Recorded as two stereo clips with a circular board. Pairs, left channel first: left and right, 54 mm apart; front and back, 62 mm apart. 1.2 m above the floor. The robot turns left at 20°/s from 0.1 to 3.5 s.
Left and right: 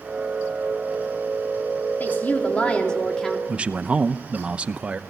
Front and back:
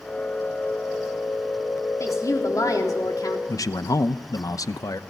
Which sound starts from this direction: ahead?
A man speaking, at 3.5 s.